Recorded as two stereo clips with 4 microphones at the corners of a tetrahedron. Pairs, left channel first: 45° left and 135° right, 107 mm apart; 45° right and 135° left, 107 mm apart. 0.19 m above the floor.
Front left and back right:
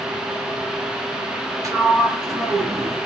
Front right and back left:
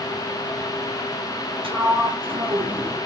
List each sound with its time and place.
1.6 s a sliding door: 165° left, 0.8 m